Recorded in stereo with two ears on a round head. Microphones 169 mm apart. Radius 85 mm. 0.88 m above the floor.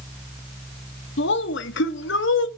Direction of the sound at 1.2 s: 65° left (ahead or behind).